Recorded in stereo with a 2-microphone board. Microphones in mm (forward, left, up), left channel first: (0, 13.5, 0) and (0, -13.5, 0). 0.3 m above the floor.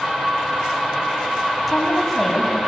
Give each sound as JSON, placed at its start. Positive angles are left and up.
{"t": 1.7, "sound": "a woman speaking", "side_deg": 5, "distance_m": 2.5}